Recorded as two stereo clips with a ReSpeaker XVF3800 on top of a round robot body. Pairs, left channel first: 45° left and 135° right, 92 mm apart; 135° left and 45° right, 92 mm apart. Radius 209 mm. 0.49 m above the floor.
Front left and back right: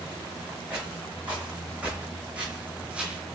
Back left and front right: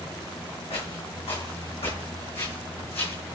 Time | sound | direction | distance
0.7 | footsteps | 150° left | 3.5 m